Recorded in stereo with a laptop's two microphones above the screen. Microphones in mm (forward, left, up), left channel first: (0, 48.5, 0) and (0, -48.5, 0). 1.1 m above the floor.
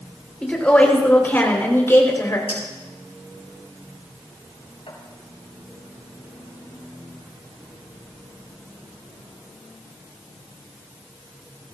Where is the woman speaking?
10° left (ahead or behind), 4.5 m; by 2.4 s 30° left (ahead or behind), 4 m.